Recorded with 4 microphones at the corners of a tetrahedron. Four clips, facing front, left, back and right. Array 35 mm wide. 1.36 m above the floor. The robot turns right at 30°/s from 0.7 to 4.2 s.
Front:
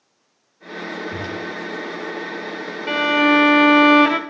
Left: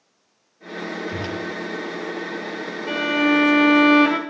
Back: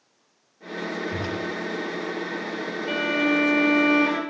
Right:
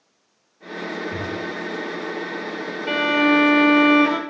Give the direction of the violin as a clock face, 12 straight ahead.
1 o'clock.